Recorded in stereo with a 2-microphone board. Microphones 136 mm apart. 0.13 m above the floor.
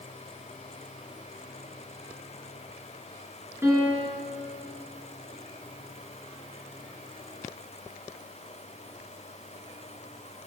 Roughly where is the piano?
Centre.